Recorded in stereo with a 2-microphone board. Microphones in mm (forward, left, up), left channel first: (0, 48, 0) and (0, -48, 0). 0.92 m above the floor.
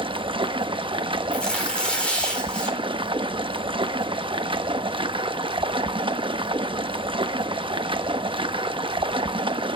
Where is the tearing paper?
10° left (ahead or behind), 3.5 m.